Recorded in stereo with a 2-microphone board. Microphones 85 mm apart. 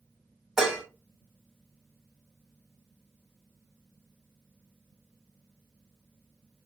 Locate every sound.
0.6 s dishes clattering: 5° right (ahead or behind), 0.9 m